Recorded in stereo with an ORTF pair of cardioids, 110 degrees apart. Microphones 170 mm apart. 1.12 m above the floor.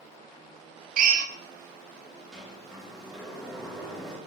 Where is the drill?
55° right, 0.5 m.